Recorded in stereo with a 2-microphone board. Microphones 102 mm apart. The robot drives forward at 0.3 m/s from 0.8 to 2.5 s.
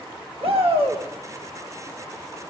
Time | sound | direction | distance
0.4 | a shout | 70° right (ahead or behind) | 3 m